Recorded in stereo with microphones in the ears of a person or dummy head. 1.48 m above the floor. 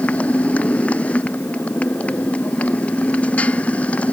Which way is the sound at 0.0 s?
10° left (ahead or behind).